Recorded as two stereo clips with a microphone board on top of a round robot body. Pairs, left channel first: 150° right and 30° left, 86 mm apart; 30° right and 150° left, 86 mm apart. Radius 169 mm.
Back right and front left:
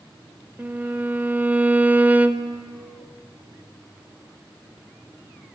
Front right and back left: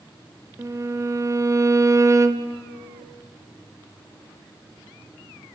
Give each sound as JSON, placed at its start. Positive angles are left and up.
{"t": 0.6, "sound": "a violin", "azimuth_deg": 100, "distance_m": 1.5}